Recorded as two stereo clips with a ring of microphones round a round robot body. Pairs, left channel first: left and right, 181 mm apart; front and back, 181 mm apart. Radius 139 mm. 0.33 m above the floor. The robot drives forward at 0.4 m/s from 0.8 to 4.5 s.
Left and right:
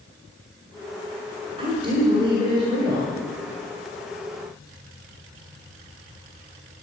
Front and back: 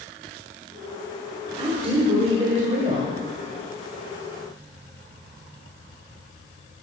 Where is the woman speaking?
135° right, 1.5 m; by 3.1 s 150° right, 1.9 m.